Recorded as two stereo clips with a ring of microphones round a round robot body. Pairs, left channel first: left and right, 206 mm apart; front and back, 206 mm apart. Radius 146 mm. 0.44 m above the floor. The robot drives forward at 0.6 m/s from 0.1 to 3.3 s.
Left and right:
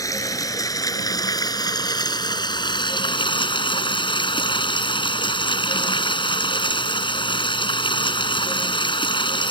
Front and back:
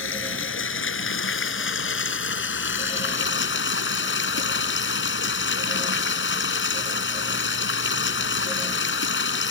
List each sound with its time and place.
0.0 s running water: 15° left; by 9.5 s 25° left